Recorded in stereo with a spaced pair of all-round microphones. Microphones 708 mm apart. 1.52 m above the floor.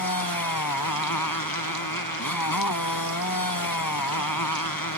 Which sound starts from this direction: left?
A motorcycle, at 0.0 s.